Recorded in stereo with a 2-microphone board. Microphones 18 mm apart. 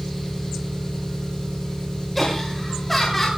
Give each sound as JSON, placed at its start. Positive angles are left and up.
{"t": 0.0, "sound": "an engine running", "side_deg": 35, "distance_m": 9.0}
{"t": 2.1, "sound": "laughter", "side_deg": 5, "distance_m": 3.0}